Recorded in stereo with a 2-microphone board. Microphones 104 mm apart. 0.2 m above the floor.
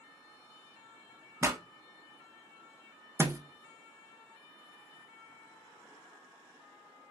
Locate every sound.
1.4 s a pop: 25° right (ahead or behind), 0.6 m
3.2 s a thud: 25° right (ahead or behind), 0.6 m